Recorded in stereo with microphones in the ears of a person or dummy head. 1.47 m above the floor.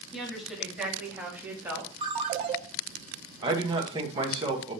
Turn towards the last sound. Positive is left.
turn(degrees=-25)  # may be behind; listen again after turning